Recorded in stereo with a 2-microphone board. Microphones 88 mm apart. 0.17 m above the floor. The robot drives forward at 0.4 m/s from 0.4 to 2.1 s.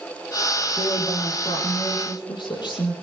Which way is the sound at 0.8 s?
55° left (ahead or behind).